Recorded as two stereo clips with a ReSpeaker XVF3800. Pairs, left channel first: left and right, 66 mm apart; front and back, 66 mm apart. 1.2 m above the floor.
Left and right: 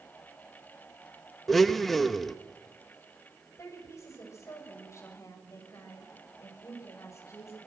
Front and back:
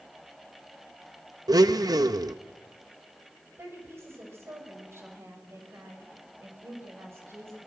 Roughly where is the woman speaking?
Behind left.